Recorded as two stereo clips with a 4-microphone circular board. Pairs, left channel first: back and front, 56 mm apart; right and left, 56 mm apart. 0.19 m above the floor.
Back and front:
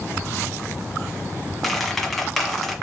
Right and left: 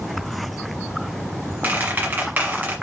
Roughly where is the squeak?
Left.